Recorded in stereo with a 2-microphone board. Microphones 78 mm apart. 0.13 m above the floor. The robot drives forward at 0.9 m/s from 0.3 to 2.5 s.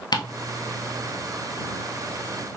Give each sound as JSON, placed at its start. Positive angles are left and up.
{"t": 0.1, "sound": "ticking", "side_deg": 65, "distance_m": 0.8}